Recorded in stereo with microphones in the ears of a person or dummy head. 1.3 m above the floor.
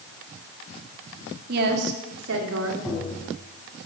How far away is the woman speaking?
About 3 m.